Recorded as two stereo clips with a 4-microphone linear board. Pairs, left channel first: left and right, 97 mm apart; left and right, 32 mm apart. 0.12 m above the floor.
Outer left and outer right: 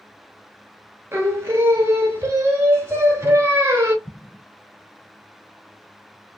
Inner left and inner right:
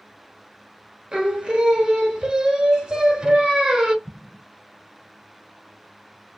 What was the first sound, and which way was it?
Singing, 25° right (ahead or behind).